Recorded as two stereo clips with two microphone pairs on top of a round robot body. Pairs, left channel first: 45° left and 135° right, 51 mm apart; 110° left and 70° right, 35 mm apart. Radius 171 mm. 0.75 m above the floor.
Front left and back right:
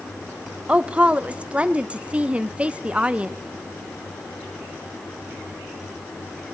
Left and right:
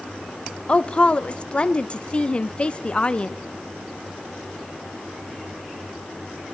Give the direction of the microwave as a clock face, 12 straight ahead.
No microwave in this recording.